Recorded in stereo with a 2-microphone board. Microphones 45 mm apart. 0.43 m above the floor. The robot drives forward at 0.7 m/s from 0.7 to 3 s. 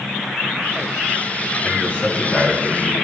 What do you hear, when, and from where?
1.6 s a man speaking: 45° left (ahead or behind), 2.5 m; by 2.9 s 30° left (ahead or behind), 3 m